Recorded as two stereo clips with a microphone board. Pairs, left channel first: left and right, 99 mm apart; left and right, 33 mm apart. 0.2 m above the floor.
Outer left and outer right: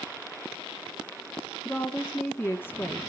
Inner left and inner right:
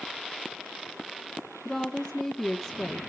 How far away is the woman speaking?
About 1.5 m.